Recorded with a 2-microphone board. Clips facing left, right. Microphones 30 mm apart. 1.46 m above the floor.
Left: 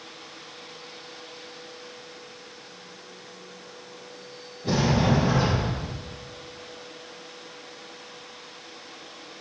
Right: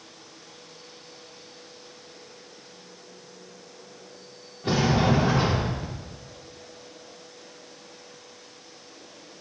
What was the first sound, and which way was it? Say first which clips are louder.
A sliding door: even; 75° right (ahead or behind).